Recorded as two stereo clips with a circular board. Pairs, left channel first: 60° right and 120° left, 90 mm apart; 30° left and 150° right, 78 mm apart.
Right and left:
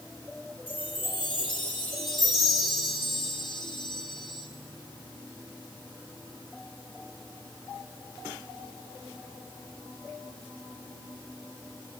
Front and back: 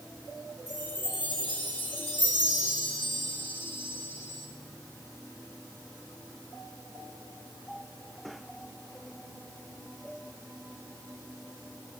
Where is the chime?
35° right, 4 m.